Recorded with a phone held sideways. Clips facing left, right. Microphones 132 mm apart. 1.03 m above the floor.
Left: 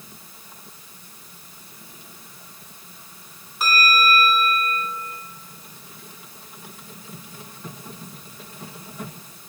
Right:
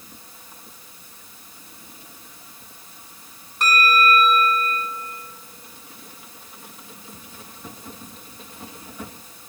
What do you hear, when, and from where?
3.6 s a bell: centre (ahead or behind), 4 m